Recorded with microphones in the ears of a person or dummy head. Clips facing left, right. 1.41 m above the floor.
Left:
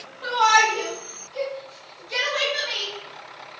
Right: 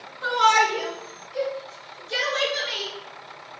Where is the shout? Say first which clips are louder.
Even; 25° right (ahead or behind), 1.6 m; by 2.9 s 45° right (ahead or behind), 4.5 m.